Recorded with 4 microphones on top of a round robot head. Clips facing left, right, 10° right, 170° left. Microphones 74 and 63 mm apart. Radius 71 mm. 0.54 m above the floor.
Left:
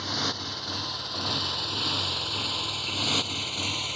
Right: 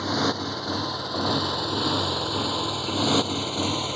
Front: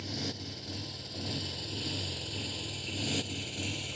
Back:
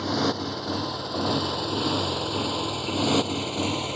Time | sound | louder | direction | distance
0.0 | a motorcycle | right 8 dB, back 14 dB | 145° right | ?